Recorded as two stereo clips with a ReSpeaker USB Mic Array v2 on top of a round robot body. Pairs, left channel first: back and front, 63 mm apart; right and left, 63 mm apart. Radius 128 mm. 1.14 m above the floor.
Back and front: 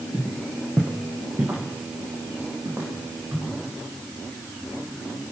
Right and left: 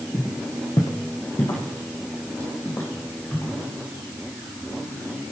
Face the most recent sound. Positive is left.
turn(degrees=-45)